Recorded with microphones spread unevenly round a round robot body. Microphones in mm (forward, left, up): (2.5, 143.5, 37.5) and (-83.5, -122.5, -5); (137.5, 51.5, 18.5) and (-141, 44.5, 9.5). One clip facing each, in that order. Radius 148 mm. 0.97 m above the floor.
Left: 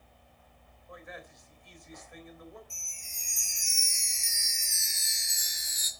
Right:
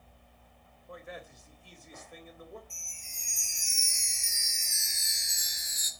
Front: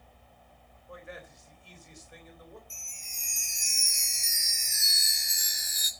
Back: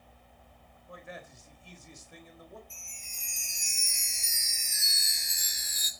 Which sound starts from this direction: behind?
A man speaking, at 0.9 s.